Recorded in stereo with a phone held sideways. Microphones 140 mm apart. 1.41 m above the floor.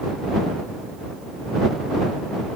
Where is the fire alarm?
No fire alarm in this recording.